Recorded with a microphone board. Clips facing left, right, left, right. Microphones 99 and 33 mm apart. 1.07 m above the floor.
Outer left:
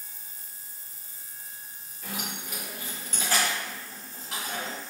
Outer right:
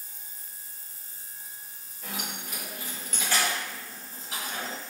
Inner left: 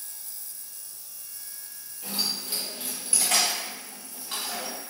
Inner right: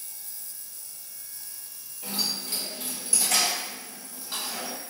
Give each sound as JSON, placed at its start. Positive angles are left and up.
{"t": 2.0, "sound": "keys jangling", "side_deg": 0, "distance_m": 1.1}